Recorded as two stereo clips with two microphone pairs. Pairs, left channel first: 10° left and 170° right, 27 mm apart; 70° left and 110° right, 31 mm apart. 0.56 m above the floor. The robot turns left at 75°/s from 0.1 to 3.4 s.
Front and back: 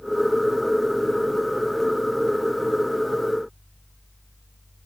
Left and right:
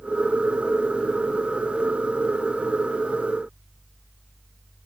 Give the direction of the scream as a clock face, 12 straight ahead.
No scream in this recording.